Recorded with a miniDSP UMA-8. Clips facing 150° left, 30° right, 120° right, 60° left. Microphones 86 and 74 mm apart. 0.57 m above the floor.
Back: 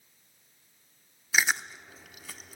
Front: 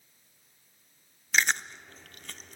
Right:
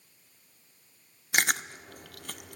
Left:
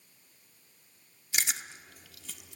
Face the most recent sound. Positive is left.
turn(degrees=-130)